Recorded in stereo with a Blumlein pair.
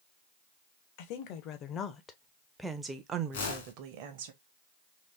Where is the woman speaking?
45° left, 1.3 m; by 4.3 s 50° right, 1.2 m.